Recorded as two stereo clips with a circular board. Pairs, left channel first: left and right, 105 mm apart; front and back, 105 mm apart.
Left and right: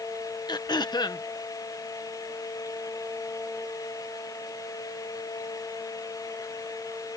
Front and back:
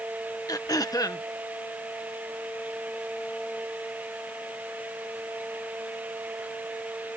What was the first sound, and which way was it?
Throat clearing, 50° left.